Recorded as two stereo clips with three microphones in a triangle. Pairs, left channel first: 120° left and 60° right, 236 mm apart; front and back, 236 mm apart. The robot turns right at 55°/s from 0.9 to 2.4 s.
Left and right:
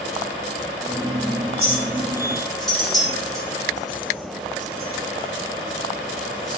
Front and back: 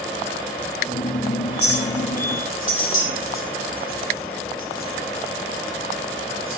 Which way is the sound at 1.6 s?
15° right.